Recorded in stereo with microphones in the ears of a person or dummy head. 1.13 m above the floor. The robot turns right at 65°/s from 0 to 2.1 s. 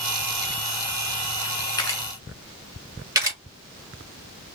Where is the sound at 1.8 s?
25° left (ahead or behind), 1.5 m; by 2.0 s 10° left (ahead or behind), 1.5 m.